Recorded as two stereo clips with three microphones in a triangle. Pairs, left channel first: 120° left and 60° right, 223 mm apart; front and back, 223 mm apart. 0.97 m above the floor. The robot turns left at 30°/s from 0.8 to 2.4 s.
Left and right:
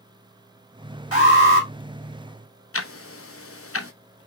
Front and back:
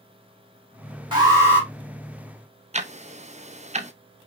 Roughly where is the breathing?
No breathing in this recording.